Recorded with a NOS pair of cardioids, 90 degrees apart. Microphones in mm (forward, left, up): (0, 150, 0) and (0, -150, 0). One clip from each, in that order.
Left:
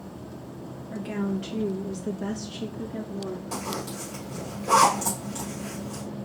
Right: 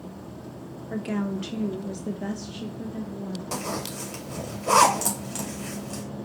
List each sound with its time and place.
0.9 s a woman speaking: 40° right, 1.1 m; by 3.4 s 40° left, 1.2 m
3.5 s a zipper: 45° right, 2 m